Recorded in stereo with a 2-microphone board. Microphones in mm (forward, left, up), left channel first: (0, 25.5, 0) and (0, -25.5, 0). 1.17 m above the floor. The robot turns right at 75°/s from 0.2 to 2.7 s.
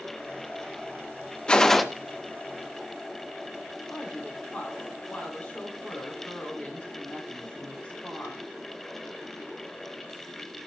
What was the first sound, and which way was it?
A gunshot, 15° left (ahead or behind).